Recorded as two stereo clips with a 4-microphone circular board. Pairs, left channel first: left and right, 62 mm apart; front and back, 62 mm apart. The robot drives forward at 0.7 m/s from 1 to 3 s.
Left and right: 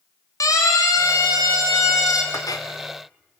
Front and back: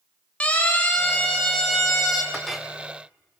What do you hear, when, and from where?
0.4 s a siren: 70° left, 3.5 m; by 2.2 s 90° left, 4 m
2.3 s a clink: 85° left, 1.8 m; by 2.7 s 95° left, 1.9 m